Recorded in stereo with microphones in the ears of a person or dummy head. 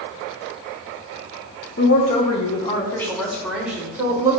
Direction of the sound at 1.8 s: 50° left (ahead or behind).